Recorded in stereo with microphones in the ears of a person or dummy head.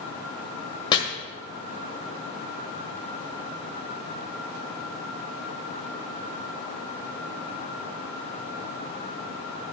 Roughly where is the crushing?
No crushing in this recording.